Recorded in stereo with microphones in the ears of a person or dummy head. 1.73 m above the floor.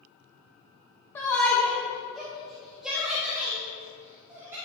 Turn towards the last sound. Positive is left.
turn(degrees=-15)  # may be behind; listen again after turning